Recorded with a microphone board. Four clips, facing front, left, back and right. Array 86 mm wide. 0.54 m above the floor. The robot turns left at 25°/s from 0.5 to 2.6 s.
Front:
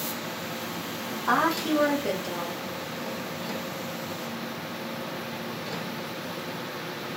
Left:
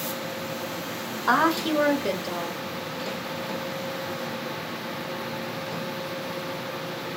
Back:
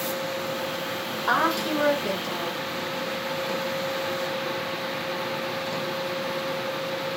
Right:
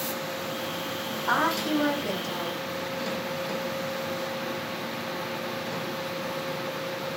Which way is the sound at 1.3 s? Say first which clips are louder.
Left 4 dB, even; 105° left.